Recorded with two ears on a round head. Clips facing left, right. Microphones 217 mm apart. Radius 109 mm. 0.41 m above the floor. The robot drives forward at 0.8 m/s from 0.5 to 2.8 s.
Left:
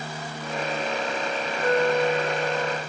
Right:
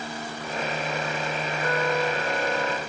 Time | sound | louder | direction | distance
1.6 | a flute | left 5 dB | 25° left (ahead or behind) | 0.6 m